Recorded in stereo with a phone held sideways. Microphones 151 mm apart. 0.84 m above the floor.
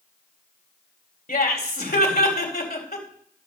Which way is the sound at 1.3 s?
70° left (ahead or behind).